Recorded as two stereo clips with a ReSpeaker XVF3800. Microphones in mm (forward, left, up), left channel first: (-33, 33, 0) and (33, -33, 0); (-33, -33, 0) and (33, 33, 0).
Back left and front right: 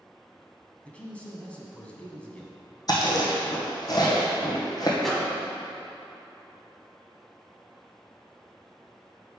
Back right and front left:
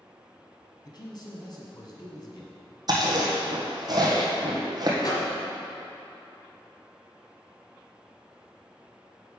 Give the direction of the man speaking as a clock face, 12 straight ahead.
5 o'clock.